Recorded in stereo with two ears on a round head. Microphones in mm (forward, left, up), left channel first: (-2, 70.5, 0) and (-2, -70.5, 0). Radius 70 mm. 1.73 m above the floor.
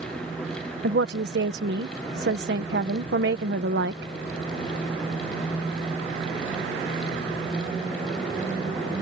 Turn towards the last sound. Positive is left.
turn(degrees=-75)  # may be behind; listen again after turning